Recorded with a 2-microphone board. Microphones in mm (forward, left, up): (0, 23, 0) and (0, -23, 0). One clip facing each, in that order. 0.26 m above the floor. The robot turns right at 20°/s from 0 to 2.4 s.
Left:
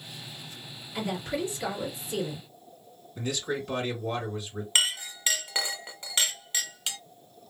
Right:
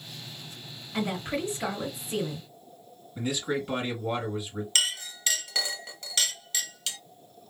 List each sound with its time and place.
0.9 s a woman speaking: 50° right (ahead or behind), 1.5 m; by 2.4 s 30° right (ahead or behind), 1.5 m
3.1 s a man speaking: 10° right (ahead or behind), 2 m
4.8 s a clink: 25° left (ahead or behind), 0.6 m